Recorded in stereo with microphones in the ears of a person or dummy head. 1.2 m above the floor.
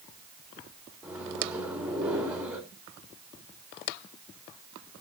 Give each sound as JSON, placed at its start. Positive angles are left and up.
{"t": 1.0, "sound": "a microwave", "side_deg": -5, "distance_m": 2.5}